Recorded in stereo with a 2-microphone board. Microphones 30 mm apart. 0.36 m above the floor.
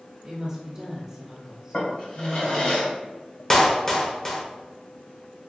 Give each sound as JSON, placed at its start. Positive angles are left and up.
{"t": 0.2, "sound": "a woman speaking", "side_deg": -30, "distance_m": 1.2}
{"t": 1.7, "sound": "a drawer", "side_deg": 45, "distance_m": 1.2}
{"t": 3.5, "sound": "a clap", "side_deg": 15, "distance_m": 0.7}